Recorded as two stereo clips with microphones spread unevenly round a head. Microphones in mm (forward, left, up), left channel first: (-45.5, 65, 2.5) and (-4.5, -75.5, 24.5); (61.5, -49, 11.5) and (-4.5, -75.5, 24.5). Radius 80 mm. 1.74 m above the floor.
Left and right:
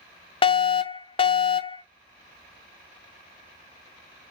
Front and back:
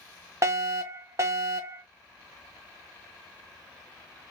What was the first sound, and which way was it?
A fire alarm, 145° left.